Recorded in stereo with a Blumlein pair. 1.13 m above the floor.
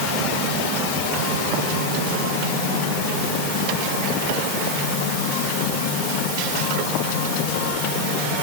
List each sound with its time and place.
Only background noise.